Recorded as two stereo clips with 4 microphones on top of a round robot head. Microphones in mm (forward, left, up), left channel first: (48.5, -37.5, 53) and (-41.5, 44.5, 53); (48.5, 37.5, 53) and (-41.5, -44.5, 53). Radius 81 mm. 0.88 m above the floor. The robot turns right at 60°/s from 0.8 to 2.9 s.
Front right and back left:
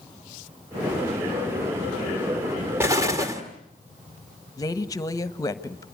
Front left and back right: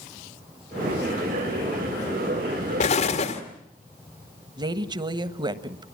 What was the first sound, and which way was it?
An explosion, 65° left.